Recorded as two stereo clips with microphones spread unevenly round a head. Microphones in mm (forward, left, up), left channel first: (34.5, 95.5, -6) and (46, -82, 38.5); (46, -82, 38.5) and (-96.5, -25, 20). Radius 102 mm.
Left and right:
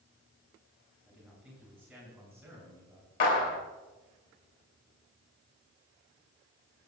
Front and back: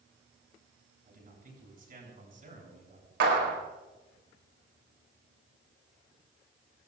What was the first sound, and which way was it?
A man speaking, 175° right.